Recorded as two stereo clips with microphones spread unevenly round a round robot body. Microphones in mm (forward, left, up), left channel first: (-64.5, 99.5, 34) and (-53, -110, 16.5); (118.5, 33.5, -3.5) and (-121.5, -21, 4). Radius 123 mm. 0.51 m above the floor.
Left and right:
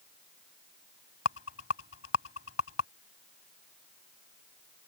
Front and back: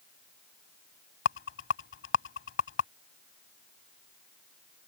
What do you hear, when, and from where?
1.2 s a rattle: 55° left